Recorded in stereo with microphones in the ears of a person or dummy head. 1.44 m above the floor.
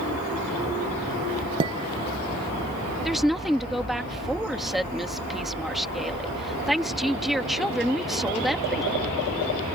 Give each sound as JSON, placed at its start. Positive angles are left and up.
{"t": 1.6, "sound": "dishes clattering", "side_deg": -25}
{"t": 3.0, "sound": "a woman speaking", "side_deg": 0}